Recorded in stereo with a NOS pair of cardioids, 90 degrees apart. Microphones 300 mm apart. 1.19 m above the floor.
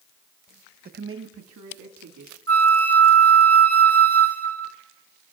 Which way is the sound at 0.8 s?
30° right.